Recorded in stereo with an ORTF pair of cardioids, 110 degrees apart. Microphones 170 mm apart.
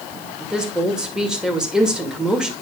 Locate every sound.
0.4 s a woman speaking: 5° right, 2 m